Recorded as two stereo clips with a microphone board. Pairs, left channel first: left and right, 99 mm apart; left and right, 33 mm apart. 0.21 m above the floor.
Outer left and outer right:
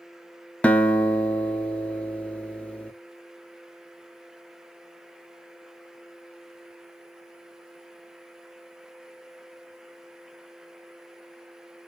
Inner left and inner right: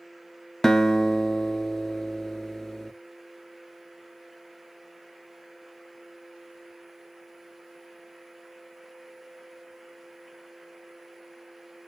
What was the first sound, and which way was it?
A guitar, 15° left (ahead or behind).